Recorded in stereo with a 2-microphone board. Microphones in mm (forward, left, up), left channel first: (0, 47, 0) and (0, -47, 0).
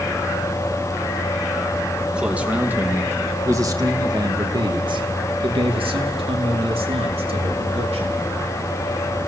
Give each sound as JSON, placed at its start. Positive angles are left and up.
{"t": 2.1, "sound": "a man speaking", "side_deg": -10, "distance_m": 2.5}